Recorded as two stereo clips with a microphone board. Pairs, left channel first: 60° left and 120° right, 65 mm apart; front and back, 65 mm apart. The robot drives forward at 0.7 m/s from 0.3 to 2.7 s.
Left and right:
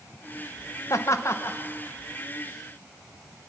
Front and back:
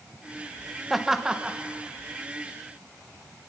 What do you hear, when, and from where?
0.9 s laughter: 90° left, 1.3 m; by 1.6 s 110° left, 1.4 m